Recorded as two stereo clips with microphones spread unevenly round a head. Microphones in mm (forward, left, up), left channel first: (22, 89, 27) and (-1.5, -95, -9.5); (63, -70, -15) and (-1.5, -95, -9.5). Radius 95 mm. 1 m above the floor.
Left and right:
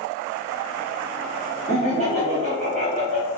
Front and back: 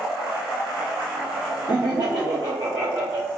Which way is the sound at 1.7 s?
145° right.